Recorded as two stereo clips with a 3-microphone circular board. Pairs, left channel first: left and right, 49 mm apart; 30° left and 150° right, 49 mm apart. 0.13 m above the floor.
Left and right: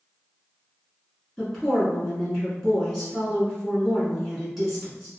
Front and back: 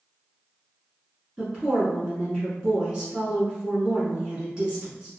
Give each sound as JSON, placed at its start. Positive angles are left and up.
{"t": 1.4, "sound": "a woman speaking", "azimuth_deg": 170, "distance_m": 1.7}